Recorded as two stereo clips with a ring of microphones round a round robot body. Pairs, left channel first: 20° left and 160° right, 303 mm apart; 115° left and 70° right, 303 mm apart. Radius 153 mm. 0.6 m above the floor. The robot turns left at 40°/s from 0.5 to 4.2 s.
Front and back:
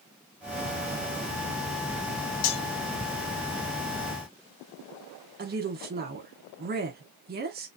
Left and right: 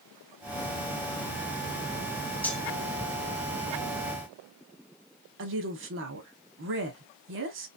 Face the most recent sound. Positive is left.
turn(degrees=-105)